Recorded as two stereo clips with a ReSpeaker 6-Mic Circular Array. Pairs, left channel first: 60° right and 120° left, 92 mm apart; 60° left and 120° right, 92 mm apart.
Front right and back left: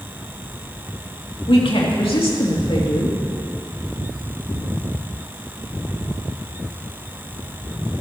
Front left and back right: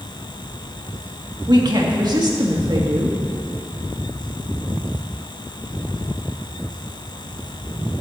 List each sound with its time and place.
1.5 s a woman speaking: 80° right, 2.5 m